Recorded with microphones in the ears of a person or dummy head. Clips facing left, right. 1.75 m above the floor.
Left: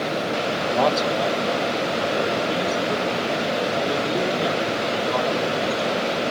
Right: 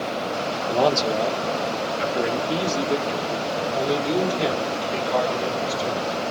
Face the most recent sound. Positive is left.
turn(degrees=-35)  # may be behind; listen again after turning